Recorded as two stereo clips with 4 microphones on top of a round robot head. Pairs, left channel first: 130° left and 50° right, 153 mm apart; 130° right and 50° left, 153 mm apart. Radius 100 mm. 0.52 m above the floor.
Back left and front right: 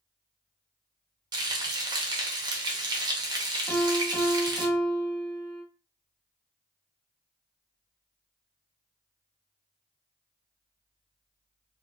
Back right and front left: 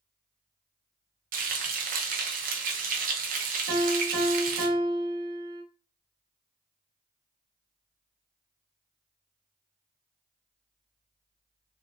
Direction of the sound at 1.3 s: 15° left.